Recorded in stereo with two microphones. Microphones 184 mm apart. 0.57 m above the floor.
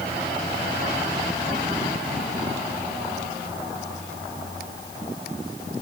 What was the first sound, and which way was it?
Only background noise.